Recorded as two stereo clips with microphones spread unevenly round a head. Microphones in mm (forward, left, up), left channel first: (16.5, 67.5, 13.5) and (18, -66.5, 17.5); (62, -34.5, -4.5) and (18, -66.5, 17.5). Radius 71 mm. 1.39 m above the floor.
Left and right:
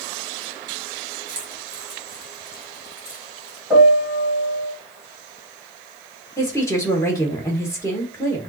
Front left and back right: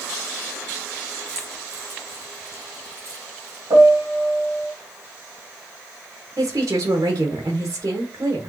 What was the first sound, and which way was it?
Keys jangling, 165° right.